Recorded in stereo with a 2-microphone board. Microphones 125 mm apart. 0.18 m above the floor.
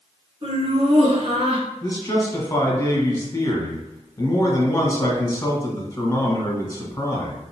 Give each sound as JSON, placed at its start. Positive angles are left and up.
{"t": 0.4, "sound": "laughter", "side_deg": -45, "distance_m": 2.0}
{"t": 1.8, "sound": "a man speaking", "side_deg": 25, "distance_m": 1.2}